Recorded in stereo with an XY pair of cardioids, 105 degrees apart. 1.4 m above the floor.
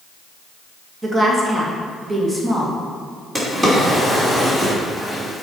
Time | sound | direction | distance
1.0 | a woman speaking | 25° right | 2.0 m
3.4 | a drawer | 20° right | 3 m